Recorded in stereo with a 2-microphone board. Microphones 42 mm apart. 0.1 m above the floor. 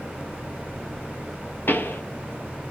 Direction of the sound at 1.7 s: 60° left (ahead or behind).